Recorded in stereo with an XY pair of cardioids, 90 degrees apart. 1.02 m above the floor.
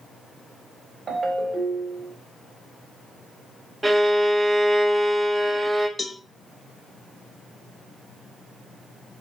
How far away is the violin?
About 1.2 m.